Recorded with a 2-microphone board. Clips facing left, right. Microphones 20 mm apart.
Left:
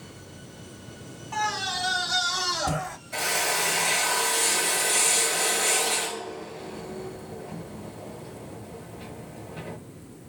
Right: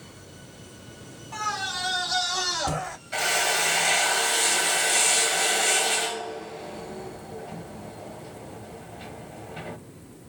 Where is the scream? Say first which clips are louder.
Left 1 dB; 10° left (ahead or behind), 1.6 m; by 3.0 s 20° right (ahead or behind), 1.5 m.